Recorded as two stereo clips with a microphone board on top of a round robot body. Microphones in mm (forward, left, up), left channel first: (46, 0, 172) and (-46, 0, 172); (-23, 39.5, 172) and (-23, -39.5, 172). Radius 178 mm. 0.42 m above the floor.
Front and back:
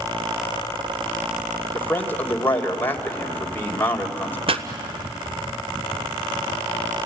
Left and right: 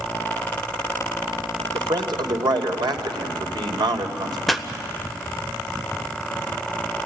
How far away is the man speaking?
About 2.5 m.